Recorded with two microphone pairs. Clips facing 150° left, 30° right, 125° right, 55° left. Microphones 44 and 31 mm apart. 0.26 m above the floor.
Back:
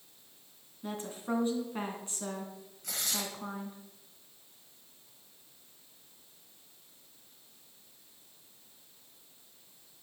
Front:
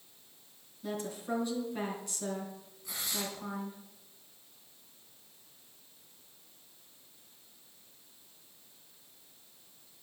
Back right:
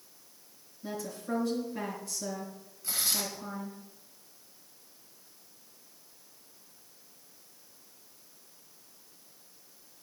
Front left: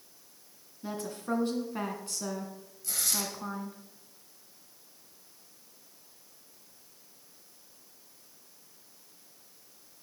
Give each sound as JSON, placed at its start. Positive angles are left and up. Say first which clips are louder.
{"t": 0.8, "sound": "a woman speaking", "louder": "even, front left 2 dB", "azimuth_deg": 90, "distance_m": 2.5}
{"t": 2.8, "sound": "tearing paper", "louder": "back 1 dB, back right 1 dB", "azimuth_deg": 165, "distance_m": 2.5}